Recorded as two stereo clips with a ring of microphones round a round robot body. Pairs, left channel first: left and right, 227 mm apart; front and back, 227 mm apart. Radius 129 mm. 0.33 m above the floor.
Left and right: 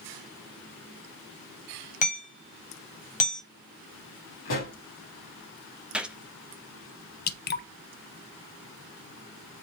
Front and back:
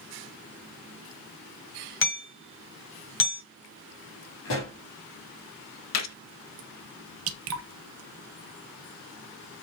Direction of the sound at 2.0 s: 30° left.